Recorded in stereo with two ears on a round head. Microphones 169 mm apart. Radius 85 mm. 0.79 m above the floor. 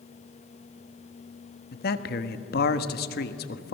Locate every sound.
1.7 s a man speaking: 55° left (ahead or behind), 1.3 m